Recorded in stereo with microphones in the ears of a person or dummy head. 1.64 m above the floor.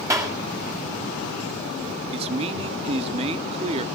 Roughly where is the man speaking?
Right.